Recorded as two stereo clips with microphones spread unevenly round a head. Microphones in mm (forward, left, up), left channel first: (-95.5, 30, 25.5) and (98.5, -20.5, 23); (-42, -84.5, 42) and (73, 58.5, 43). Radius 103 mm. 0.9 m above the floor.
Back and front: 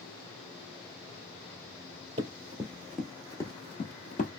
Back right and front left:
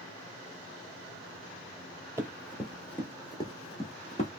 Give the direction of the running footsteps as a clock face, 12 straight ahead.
1 o'clock.